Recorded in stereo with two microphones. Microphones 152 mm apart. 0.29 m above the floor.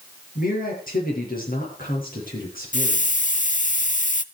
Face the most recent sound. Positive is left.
turn(degrees=55)  # may be behind; listen again after turning